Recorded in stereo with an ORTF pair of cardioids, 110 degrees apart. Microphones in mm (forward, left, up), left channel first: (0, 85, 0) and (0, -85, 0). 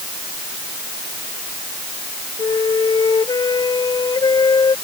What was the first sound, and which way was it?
A flute, 25° left.